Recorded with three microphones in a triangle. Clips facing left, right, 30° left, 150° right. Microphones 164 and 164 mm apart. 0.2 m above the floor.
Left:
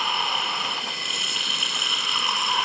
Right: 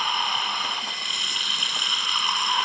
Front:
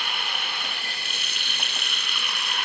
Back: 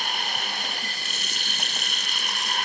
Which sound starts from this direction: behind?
Running water, at 0.0 s.